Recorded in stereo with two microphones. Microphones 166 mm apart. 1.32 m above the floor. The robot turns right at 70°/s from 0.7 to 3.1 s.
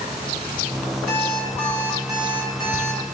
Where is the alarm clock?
130° left, 3 m; by 3.0 s 95° right, 3 m.